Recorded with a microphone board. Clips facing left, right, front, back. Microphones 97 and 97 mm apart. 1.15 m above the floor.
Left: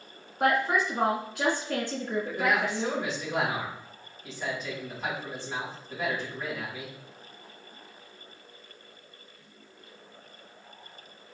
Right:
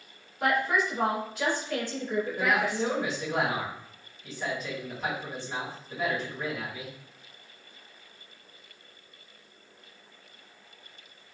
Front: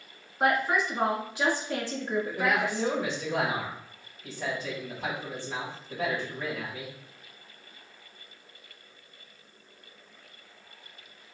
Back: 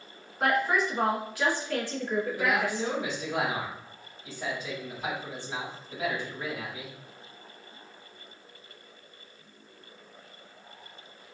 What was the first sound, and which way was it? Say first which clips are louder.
A woman speaking: left 1 dB, even; 65° left.